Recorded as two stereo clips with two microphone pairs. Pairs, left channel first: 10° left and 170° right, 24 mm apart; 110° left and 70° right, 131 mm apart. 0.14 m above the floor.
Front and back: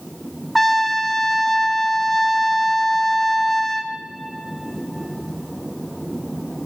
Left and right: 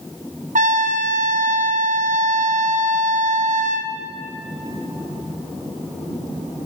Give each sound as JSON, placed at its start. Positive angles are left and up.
{"t": 0.6, "sound": "a trumpet", "azimuth_deg": -75, "distance_m": 1.2}